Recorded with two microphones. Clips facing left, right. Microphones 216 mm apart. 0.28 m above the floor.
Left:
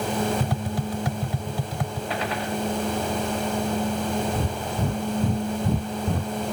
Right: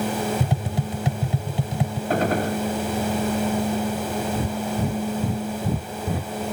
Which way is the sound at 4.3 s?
5° right (ahead or behind).